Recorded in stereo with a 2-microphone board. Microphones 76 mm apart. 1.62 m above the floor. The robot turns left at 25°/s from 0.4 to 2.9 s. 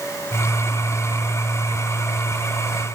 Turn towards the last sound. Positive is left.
No sound to turn to.